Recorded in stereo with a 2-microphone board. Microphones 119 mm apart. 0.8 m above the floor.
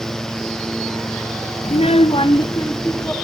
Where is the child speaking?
60° left (ahead or behind), 0.5 m; by 3.1 s 20° left (ahead or behind), 1.1 m.